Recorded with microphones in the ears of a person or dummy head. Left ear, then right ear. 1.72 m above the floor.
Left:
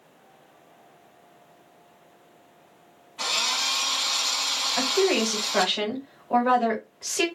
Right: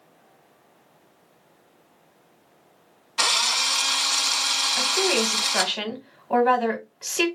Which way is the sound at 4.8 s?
20° right (ahead or behind).